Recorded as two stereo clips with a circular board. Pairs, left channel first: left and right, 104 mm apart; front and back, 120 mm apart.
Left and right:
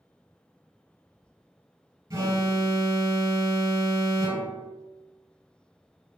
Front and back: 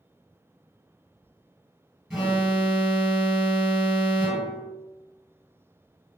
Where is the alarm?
100° right, 1.1 m.